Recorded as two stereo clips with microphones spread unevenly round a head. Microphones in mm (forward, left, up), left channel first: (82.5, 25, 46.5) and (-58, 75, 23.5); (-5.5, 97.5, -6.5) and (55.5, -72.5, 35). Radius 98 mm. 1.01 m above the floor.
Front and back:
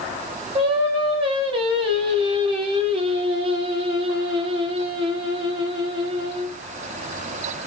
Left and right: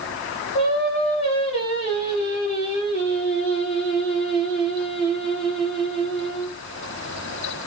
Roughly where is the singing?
Behind left.